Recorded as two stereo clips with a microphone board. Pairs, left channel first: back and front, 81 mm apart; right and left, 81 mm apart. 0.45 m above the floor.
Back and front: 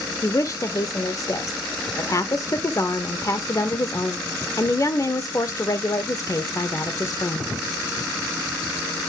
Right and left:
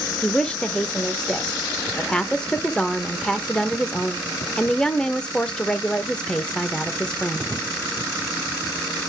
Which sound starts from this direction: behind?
A woman speaking, at 0.2 s.